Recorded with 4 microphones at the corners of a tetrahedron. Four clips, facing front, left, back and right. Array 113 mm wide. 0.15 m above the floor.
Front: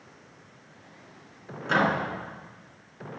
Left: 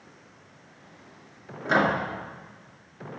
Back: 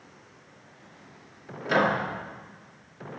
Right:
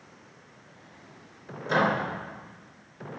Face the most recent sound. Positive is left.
turn(degrees=80)